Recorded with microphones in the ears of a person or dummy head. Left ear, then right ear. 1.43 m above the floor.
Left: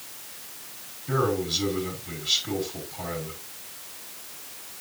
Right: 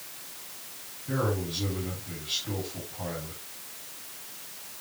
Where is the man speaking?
40° left (ahead or behind), 4.5 m.